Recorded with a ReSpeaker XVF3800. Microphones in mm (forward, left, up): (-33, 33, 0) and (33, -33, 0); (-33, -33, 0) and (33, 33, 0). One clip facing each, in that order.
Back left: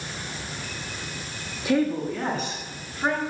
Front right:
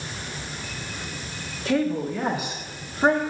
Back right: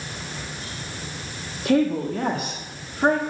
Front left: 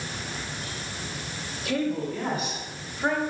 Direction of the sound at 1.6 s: 150° right.